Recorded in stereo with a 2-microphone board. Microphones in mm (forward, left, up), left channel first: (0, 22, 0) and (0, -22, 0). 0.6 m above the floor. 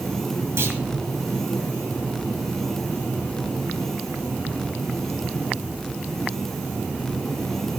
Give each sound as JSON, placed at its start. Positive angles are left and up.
{"t": 0.6, "sound": "a clunk", "side_deg": -65, "distance_m": 1.9}